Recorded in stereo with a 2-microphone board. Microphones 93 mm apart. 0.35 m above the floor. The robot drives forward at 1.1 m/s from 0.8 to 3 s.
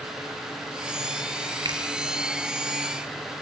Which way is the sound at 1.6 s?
50° right (ahead or behind).